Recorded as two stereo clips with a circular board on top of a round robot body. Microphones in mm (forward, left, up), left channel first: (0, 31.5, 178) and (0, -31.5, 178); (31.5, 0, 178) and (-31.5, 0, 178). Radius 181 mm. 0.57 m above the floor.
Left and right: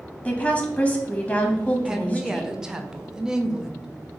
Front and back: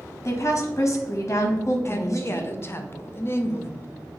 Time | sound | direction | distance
0.2 | a woman speaking | 25° left | 0.8 m
1.9 | a woman speaking | 15° right | 0.6 m